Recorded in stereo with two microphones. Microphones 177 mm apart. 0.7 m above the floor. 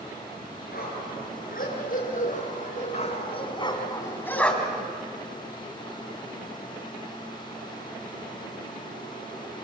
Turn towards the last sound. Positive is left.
turn(degrees=-5)  # may be behind; listen again after turning